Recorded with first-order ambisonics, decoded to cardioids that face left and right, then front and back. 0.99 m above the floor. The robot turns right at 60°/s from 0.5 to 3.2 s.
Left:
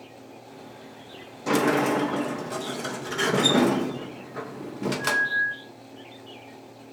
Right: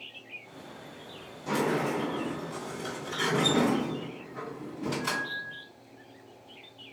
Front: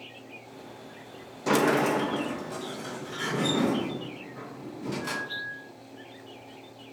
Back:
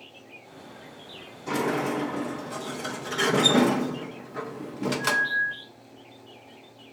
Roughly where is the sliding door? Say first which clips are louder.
Left 6 dB, front 4 dB; ahead left.